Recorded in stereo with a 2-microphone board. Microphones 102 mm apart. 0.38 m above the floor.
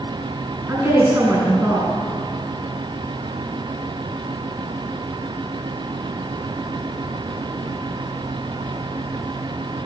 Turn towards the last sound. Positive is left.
turn(degrees=-25)  # may be behind; listen again after turning